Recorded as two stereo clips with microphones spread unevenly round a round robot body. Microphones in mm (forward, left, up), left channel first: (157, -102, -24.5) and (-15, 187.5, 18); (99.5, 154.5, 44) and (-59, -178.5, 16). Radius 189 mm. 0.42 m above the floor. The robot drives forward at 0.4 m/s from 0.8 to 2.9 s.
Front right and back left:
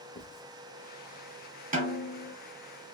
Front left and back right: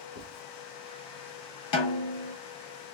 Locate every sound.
0.1 s writing: 30° left, 2.5 m
1.7 s a snare drum: 55° left, 2.5 m; by 2.3 s 60° left, 2 m